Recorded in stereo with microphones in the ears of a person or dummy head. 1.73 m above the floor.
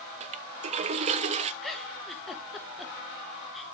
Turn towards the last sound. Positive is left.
turn(degrees=5)  # may be behind; listen again after turning